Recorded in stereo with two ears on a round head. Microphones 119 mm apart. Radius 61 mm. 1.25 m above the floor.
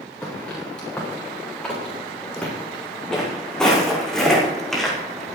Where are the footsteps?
10° left (ahead or behind), 8 m; by 5.3 s centre (ahead or behind), 5 m.